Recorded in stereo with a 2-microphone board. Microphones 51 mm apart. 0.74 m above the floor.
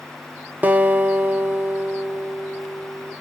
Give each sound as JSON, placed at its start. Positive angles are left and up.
{"t": 0.6, "sound": "a guitar", "side_deg": -35, "distance_m": 0.5}